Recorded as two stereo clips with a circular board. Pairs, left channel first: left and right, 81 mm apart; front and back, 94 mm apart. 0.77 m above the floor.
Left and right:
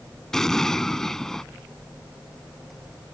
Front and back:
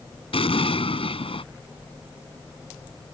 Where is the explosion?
5° left.